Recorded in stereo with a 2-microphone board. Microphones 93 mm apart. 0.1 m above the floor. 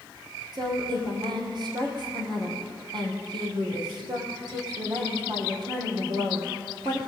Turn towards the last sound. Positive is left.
turn(degrees=-55)  # may be behind; listen again after turning